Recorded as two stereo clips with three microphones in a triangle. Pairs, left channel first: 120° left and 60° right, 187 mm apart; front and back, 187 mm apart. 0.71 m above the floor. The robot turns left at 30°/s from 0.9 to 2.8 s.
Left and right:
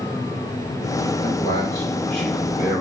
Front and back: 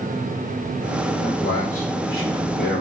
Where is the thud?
I don't hear a thud.